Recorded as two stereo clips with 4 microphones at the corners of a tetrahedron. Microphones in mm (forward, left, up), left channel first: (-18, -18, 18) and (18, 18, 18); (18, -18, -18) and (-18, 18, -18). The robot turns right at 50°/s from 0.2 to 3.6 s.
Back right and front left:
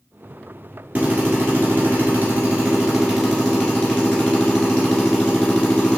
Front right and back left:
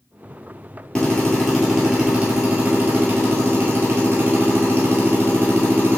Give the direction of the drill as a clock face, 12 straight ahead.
11 o'clock.